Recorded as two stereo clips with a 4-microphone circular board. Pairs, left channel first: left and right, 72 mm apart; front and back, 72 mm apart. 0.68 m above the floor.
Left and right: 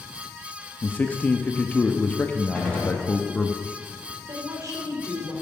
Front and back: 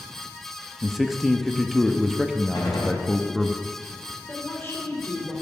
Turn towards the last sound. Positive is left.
turn(degrees=-50)